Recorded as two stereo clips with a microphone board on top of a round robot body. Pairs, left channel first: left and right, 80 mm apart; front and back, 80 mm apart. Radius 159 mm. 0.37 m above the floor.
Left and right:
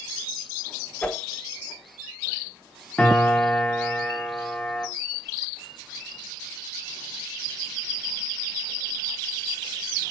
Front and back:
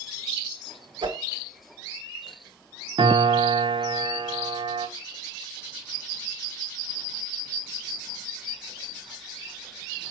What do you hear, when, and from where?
1.0 s a whoosh: 165° left, 1.3 m
3.0 s a piano: 165° left, 1.2 m